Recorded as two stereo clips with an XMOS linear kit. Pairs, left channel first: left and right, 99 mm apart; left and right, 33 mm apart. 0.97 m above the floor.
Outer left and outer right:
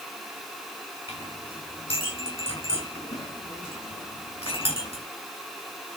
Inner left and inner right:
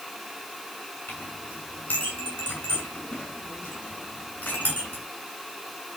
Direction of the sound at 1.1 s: 65° left (ahead or behind).